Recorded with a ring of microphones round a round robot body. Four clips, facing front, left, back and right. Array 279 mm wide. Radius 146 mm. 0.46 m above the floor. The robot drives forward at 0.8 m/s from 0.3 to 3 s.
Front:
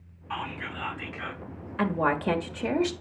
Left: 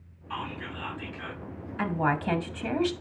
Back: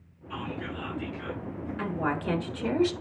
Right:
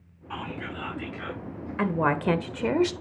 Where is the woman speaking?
55° right, 1.7 m; by 2.9 s 90° right, 1.5 m.